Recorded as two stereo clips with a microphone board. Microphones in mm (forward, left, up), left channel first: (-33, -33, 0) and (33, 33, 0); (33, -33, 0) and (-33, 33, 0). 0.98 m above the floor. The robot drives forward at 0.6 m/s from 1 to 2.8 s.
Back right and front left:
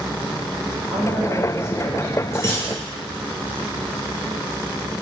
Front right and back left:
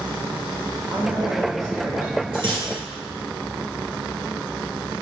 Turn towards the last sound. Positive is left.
turn(degrees=165)